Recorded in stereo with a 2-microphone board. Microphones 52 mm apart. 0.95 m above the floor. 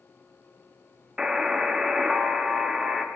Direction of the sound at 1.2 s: 10° right (ahead or behind).